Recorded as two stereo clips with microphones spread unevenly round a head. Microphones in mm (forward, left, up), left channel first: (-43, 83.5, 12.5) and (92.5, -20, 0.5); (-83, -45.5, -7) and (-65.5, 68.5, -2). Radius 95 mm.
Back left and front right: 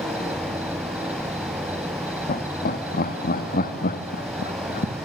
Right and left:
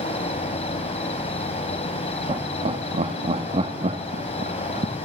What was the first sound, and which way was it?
An insect, 120° right.